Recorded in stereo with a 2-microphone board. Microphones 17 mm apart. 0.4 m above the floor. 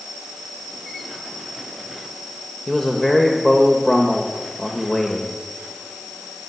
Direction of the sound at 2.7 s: 25° left (ahead or behind).